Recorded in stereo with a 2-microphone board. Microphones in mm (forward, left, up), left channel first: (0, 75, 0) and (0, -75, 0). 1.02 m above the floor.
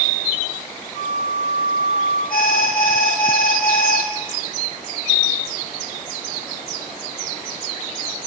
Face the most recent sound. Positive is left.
turn(degrees=70)  # may be behind; listen again after turning